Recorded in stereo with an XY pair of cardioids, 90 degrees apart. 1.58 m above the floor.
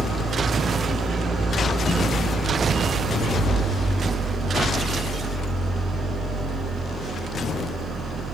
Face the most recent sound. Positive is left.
turn(degrees=-60)